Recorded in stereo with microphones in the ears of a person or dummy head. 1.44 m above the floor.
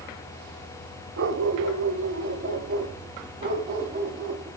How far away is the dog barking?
About 3 m.